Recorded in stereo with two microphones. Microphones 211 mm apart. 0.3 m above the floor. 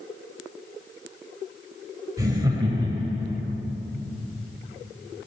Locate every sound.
2.2 s laughter: 15° right (ahead or behind), 1.0 m; by 3.4 s 25° right (ahead or behind), 1.5 m